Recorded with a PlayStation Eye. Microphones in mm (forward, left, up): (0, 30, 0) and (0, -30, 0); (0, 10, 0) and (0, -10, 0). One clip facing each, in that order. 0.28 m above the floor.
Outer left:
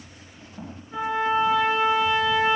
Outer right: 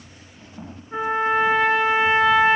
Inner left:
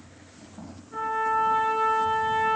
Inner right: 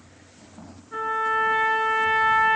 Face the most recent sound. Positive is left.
turn(degrees=-40)  # may be behind; listen again after turning